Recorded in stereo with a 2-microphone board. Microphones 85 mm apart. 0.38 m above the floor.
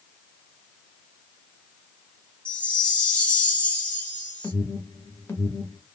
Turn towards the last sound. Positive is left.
turn(degrees=30)  # may be behind; listen again after turning